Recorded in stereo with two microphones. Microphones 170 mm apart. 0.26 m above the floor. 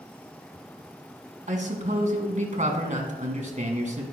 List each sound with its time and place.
1.5 s a man speaking: 45° right (ahead or behind), 2 m